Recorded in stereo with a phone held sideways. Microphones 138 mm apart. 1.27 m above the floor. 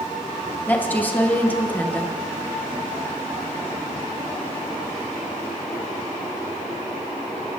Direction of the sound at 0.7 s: 15° left (ahead or behind).